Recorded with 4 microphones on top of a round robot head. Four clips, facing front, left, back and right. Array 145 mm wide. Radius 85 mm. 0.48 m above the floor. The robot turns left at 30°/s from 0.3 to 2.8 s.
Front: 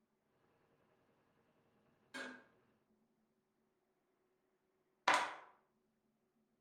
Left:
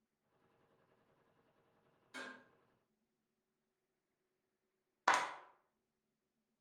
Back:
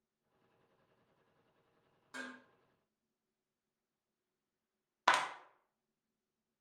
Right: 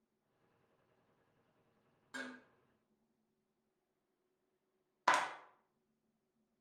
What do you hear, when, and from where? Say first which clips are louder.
2.1 s dishes clattering: right 3 dB, back 2 dB; 135° right, 1.7 m; by 2.4 s 145° right, 1.7 m
5.1 s a clap: right 1 dB, back 3 dB; 170° left, 0.5 m